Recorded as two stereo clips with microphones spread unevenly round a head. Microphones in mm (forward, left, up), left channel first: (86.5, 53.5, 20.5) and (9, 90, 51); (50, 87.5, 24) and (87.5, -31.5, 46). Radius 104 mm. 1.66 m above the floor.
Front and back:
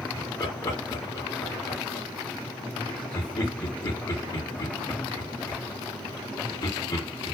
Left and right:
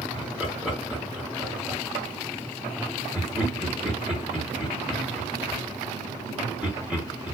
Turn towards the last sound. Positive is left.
turn(degrees=10)